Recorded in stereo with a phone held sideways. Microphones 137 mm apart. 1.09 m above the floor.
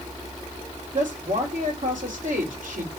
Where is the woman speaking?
70° right (ahead or behind), 2.5 m.